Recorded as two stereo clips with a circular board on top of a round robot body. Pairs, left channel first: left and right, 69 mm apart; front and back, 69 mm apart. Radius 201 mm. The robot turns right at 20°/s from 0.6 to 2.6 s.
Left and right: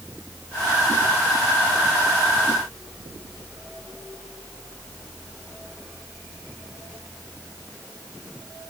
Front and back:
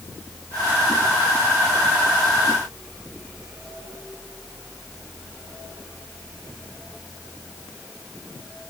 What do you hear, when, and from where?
Only background noise.